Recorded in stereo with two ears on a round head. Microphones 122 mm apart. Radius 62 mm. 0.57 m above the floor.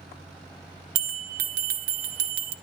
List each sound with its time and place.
0.9 s a bell: 70° right (ahead or behind), 1.8 m